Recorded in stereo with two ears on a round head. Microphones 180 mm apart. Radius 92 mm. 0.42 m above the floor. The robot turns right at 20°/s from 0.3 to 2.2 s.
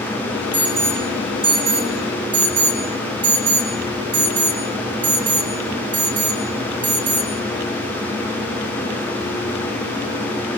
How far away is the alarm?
About 8.5 m.